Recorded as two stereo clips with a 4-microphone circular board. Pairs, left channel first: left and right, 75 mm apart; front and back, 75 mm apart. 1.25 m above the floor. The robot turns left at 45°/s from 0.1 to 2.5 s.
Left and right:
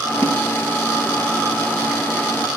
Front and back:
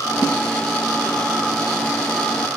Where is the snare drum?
25° left, 7 m; by 0.4 s 15° left, 7 m.